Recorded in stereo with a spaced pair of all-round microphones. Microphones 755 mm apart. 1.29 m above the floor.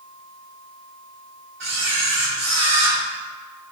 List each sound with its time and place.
1.6 s a camera shutter: 40° right (ahead or behind), 1.0 m